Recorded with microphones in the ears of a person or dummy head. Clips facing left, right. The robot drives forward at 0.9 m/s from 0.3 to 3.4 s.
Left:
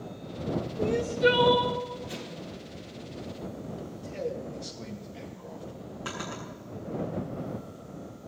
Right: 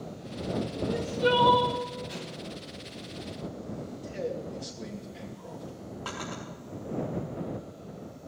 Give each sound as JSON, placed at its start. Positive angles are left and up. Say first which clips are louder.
{"t": 0.8, "sound": "crying", "louder": "left 4 dB", "side_deg": 35, "distance_m": 0.8}
{"t": 2.1, "sound": "an explosion", "louder": "even", "side_deg": 35, "distance_m": 4.0}
{"t": 4.0, "sound": "a man speaking", "louder": "even", "side_deg": -5, "distance_m": 2.5}
{"t": 6.0, "sound": "a drawer", "louder": "left 1 dB", "side_deg": 20, "distance_m": 5.5}